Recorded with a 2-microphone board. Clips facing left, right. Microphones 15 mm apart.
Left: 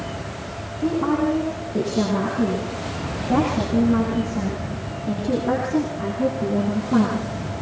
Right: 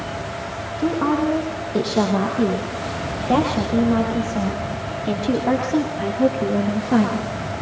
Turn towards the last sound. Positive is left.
turn(degrees=-70)  # may be behind; listen again after turning